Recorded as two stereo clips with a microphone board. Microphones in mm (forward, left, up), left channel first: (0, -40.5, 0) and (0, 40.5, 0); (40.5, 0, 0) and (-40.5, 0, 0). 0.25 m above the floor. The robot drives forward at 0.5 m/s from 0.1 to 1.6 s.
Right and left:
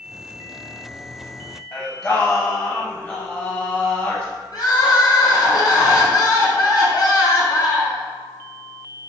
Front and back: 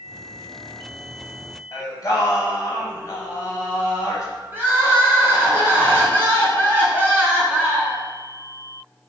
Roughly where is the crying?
Behind right.